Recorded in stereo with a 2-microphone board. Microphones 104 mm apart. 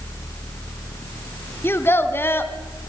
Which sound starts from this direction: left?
A child speaking, at 1.6 s.